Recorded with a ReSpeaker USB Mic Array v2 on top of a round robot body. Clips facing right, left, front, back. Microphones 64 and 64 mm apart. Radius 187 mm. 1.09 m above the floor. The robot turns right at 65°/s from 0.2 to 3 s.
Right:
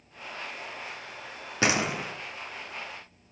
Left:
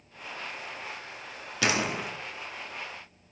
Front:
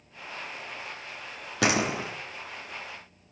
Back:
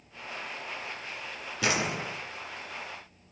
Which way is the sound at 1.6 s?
30° right.